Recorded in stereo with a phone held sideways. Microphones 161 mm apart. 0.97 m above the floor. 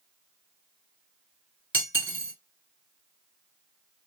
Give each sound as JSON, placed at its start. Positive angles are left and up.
{"t": 1.7, "sound": "cutlery clinking", "side_deg": -10, "distance_m": 1.2}